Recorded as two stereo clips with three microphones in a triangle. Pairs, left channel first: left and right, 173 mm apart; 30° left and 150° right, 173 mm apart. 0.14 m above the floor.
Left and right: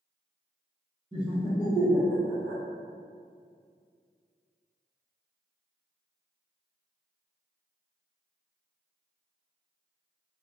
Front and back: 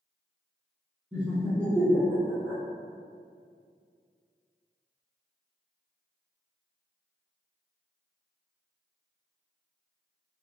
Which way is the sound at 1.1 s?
75° right.